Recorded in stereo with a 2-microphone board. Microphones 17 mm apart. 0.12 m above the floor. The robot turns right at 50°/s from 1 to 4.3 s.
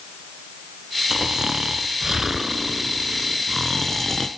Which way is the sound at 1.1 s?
110° right.